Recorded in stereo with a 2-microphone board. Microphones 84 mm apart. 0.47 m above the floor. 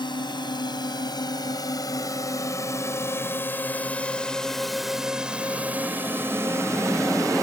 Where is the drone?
60° left (ahead or behind); by 7.4 s 40° right (ahead or behind).